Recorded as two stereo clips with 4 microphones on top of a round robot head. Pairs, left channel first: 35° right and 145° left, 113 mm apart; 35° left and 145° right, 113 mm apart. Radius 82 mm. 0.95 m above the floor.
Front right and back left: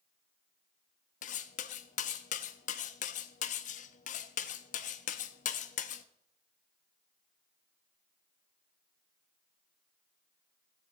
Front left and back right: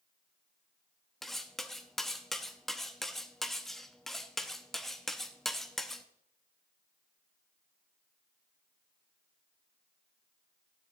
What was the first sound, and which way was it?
Cutlery clinking, 50° right.